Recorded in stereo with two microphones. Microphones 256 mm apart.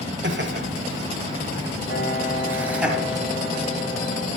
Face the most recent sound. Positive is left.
turn(degrees=35)  # may be behind; listen again after turning